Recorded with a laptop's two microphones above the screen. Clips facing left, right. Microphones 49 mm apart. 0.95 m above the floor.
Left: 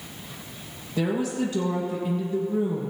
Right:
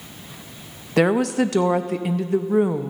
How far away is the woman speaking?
About 0.6 m.